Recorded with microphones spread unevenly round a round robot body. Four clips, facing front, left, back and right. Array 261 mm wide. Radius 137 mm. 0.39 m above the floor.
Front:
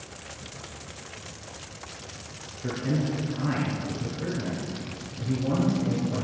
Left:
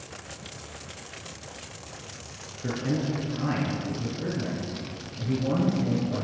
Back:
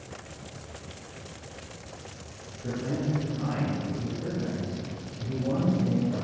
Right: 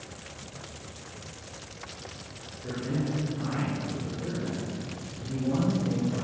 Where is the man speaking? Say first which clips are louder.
Left 3 dB, front 2 dB; 55° left, 7.5 m.